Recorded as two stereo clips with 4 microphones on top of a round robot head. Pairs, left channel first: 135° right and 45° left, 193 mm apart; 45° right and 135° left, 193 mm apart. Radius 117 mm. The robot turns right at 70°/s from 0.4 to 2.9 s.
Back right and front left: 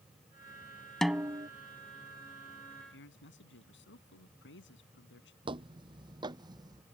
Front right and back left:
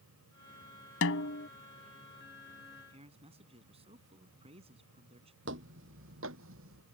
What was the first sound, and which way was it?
A snare drum, 50° right.